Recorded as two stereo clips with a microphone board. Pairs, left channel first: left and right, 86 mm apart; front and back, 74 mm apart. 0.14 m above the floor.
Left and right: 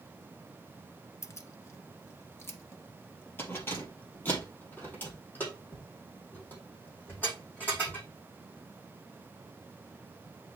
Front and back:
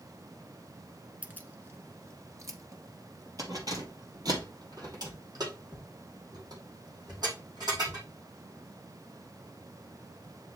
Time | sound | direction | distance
1.2 | keys jangling | 120° left | 0.9 m